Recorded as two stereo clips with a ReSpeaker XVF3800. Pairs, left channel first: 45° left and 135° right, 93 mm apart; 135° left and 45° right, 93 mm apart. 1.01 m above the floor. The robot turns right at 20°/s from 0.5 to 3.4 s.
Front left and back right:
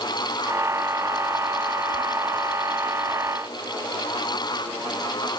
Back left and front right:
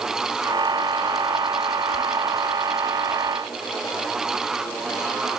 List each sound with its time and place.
Only background noise.